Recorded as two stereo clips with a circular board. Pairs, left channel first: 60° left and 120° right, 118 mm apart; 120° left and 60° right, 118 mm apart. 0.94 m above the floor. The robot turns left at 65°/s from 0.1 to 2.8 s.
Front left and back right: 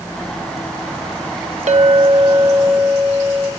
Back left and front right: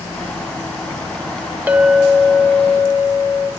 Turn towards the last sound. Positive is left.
turn(degrees=150)